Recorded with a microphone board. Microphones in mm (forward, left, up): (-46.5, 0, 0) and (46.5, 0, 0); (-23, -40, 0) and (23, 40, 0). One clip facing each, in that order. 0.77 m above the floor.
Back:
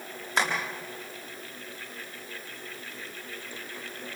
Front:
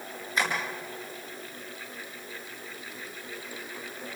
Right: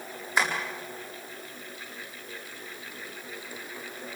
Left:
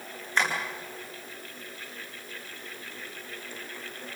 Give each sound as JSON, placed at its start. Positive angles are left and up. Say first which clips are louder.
{"t": 0.4, "sound": "tapping", "louder": "back 2 dB, right 1 dB", "azimuth_deg": 160, "distance_m": 7.5}